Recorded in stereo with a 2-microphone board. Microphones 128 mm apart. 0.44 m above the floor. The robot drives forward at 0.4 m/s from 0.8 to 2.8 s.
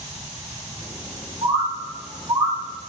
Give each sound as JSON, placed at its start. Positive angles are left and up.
{"t": 1.4, "sound": "a bird", "side_deg": -40, "distance_m": 3.5}